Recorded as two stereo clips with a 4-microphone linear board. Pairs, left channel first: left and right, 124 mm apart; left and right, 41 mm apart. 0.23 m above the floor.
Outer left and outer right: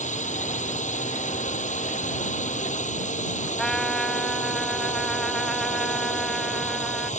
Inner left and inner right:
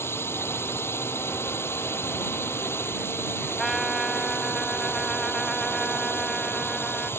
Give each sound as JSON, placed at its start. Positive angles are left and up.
{"t": 0.0, "sound": "a drone", "side_deg": 75}
{"t": 3.6, "sound": "a trumpet", "side_deg": 5}